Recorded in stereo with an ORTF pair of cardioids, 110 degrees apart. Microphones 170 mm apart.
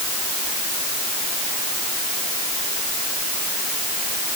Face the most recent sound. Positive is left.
No sound to turn to.